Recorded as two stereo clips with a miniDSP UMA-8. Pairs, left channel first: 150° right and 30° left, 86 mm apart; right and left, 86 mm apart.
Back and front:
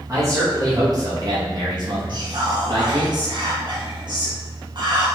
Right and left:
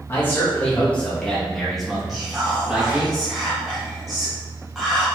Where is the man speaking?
25° right, 2.5 m; by 3.1 s 15° left, 3 m.